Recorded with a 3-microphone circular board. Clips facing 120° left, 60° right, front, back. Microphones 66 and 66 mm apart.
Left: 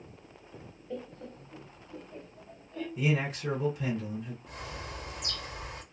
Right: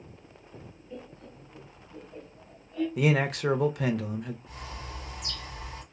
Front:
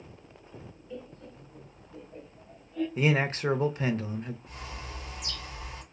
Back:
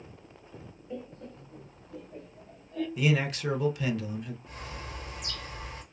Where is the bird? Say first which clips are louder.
Even, back 1 dB; 135° left, 1.4 m.